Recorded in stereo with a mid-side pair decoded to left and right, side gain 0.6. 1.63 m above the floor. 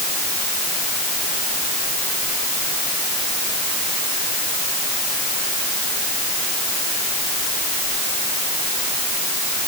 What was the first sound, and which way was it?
Only background noise.